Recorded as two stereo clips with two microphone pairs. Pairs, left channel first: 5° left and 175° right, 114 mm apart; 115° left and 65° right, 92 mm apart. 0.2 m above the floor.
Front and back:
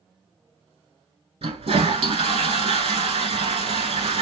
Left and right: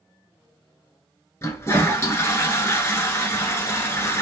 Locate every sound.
1.4 s a toilet flushing: 175° left, 0.9 m